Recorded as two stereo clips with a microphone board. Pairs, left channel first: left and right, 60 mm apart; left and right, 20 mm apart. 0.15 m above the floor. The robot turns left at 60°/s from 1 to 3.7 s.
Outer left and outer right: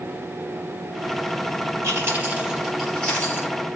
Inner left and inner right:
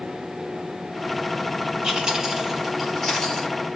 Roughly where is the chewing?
Right.